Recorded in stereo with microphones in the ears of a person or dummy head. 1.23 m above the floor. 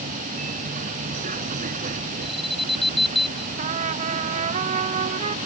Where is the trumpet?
35° right (ahead or behind).